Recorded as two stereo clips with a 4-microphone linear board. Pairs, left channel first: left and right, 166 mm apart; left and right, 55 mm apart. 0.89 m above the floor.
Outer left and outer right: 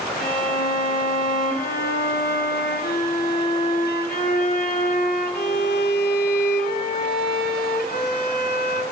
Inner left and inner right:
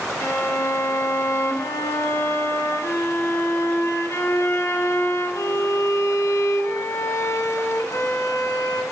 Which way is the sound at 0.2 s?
60° left (ahead or behind).